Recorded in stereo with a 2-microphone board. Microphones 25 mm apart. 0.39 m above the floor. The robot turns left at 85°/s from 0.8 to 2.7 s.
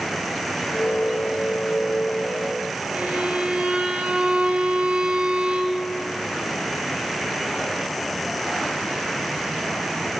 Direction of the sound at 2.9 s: 55° right (ahead or behind).